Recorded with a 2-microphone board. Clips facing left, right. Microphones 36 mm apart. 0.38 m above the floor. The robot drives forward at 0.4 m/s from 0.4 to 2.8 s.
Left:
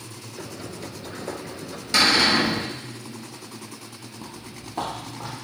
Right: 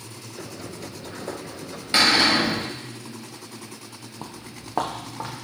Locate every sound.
1.9 s a cupboard door: 25° right (ahead or behind), 1.6 m
4.2 s footsteps: 45° right (ahead or behind), 0.5 m; by 5.3 s 75° right (ahead or behind), 1.7 m